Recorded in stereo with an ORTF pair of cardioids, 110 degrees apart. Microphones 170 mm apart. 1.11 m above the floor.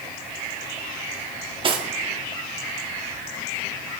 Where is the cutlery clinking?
30° right, 1.2 m.